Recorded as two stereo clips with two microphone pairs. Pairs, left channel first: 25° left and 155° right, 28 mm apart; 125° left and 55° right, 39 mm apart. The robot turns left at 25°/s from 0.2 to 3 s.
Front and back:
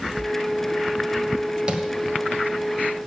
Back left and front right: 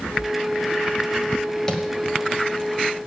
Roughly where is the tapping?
Behind.